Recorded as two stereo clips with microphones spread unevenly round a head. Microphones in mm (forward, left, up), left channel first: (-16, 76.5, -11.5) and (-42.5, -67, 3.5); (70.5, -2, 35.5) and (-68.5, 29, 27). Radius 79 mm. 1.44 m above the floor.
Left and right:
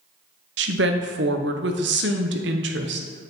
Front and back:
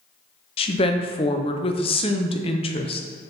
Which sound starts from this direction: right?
A woman speaking, at 0.6 s.